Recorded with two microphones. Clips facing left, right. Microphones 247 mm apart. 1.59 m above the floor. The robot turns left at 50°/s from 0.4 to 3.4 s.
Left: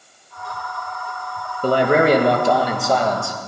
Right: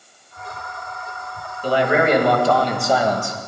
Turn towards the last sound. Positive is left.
turn(degrees=-25)